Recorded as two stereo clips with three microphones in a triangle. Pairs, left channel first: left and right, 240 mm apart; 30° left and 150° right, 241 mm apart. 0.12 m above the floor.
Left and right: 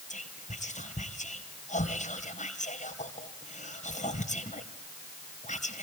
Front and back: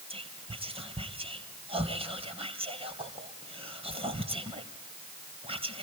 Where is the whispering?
145° left, 2.5 m.